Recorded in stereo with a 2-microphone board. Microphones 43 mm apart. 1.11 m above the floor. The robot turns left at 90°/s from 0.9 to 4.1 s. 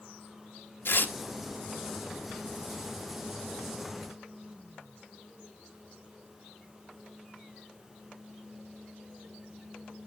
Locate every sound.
0.8 s tearing paper: 65° left (ahead or behind), 1.1 m; by 1.1 s 45° left (ahead or behind), 1.1 m